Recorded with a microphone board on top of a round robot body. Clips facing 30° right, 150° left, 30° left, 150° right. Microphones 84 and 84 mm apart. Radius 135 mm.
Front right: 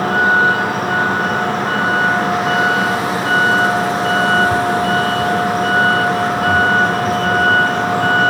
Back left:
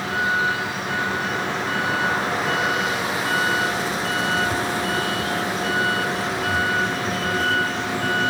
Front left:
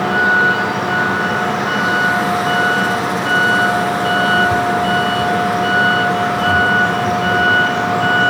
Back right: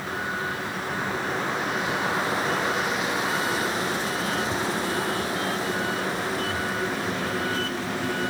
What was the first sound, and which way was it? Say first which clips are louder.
A vehicle: front right 9 dB, front left 16 dB; 10° left.